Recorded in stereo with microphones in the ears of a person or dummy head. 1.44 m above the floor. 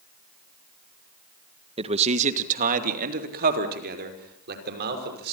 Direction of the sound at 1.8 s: 30° right (ahead or behind).